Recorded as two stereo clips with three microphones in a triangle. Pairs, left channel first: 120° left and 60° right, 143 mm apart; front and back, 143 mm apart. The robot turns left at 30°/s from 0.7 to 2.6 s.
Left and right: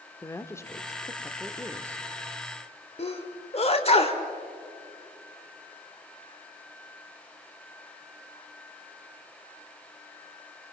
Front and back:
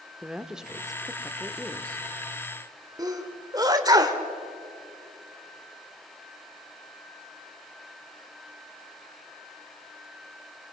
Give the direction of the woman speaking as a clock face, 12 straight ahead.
9 o'clock.